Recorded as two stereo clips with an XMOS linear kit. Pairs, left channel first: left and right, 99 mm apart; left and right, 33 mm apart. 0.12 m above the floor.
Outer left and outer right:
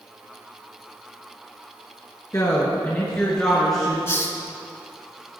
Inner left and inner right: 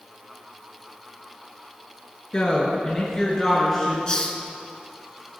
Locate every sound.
2.3 s a woman speaking: 35° left (ahead or behind), 1.6 m; by 4.0 s centre (ahead or behind), 2.5 m
4.1 s a hiss: 25° left (ahead or behind), 0.9 m